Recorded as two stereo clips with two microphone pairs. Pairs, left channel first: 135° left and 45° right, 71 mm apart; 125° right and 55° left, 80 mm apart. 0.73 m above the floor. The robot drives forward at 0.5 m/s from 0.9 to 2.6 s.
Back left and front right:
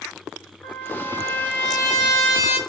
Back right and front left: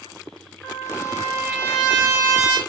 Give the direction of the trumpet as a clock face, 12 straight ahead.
8 o'clock.